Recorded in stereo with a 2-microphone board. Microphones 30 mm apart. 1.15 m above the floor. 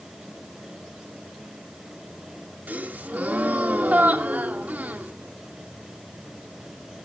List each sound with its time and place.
2.7 s a gasp: 75° right (ahead or behind), 1.8 m